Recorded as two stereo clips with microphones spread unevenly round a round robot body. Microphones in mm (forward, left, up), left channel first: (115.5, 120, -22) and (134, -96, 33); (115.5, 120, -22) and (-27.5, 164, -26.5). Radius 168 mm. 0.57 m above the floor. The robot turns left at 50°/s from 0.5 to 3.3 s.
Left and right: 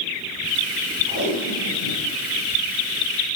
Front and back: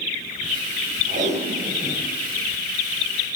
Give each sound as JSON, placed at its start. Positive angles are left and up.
{"t": 1.1, "sound": "tape being pulled", "azimuth_deg": 130, "distance_m": 5.5}